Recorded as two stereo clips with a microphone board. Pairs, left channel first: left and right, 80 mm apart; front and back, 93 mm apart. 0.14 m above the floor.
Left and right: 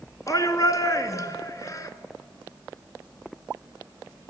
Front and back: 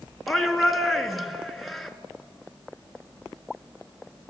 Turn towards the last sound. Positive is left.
turn(degrees=90)